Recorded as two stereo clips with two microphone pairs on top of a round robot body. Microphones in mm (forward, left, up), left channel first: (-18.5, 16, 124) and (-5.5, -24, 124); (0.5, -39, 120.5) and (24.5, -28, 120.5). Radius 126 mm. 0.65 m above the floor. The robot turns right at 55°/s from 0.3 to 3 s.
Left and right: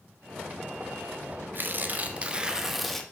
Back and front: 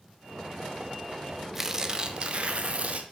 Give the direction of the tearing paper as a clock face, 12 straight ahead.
2 o'clock.